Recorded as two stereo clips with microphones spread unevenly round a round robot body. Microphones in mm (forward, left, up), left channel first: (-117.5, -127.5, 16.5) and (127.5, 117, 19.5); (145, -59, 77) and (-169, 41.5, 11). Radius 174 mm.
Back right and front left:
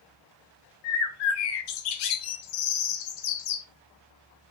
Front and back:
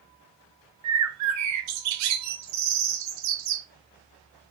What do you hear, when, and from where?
0.8 s a bird: 160° right, 0.7 m